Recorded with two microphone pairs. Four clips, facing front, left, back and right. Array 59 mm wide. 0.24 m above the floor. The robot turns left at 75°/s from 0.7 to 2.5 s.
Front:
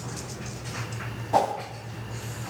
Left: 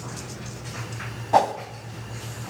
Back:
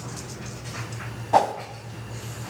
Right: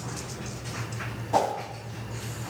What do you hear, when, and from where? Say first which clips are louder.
1.3 s a whoosh: left 5 dB, back 3 dB; 135° left, 1.1 m; by 1.5 s 120° left, 1.1 m